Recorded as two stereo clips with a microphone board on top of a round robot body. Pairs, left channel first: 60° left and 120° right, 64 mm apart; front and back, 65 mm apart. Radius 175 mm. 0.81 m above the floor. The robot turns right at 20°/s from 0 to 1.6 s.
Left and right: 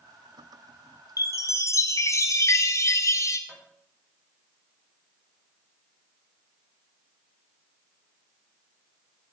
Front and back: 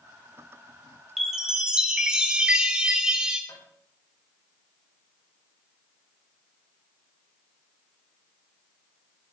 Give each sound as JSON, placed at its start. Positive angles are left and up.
{"t": 1.2, "sound": "a chime", "azimuth_deg": 90, "distance_m": 1.6}
{"t": 3.5, "sound": "tapping", "azimuth_deg": -20, "distance_m": 4.5}